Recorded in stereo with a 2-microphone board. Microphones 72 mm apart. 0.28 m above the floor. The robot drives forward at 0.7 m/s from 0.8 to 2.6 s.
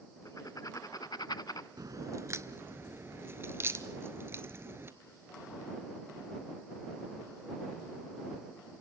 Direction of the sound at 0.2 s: 55° left (ahead or behind).